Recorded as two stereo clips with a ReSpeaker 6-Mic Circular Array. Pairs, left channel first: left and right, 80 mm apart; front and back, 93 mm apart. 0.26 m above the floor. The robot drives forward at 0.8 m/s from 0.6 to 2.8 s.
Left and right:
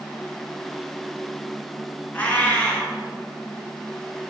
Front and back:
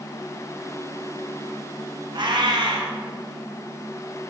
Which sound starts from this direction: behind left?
A cat meowing, at 2.1 s.